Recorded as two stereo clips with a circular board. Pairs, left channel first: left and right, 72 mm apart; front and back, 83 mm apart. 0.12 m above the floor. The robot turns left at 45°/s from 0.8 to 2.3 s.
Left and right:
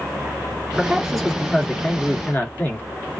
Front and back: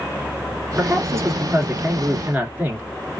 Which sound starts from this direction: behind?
A man speaking, at 0.8 s.